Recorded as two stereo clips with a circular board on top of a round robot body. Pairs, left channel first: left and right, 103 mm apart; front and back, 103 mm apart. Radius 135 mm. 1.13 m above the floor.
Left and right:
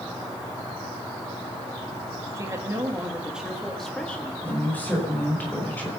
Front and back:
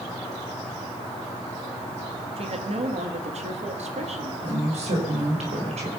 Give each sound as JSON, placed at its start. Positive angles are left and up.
{"t": 2.4, "sound": "a woman speaking", "azimuth_deg": -150, "distance_m": 2.5}
{"t": 4.4, "sound": "a woman speaking", "azimuth_deg": 165, "distance_m": 5.5}